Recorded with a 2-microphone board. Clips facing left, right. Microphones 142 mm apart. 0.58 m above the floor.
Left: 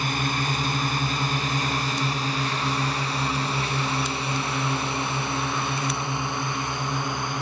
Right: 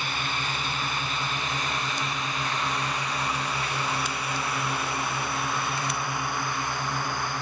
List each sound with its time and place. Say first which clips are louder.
0.0 s a drone: left 5 dB; 40° left (ahead or behind); by 7.4 s 20° left (ahead or behind)